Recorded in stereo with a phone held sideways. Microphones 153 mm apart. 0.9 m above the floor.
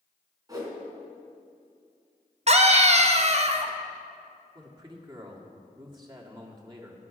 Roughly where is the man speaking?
Right.